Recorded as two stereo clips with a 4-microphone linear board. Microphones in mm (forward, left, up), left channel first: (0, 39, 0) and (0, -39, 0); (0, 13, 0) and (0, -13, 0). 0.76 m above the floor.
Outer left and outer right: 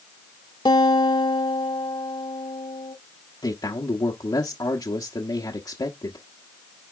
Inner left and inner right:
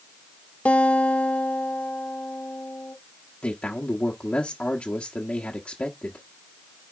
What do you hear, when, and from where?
0.7 s a guitar: 75° left (ahead or behind), 0.9 m
3.4 s a man speaking: 60° left (ahead or behind), 1.1 m